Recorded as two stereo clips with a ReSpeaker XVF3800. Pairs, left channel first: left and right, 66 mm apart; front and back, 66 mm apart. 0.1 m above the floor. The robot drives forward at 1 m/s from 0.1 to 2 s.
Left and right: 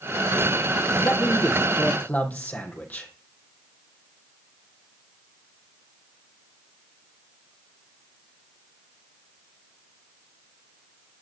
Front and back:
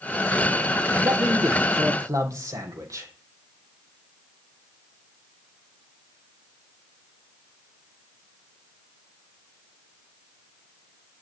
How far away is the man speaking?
About 2.5 m.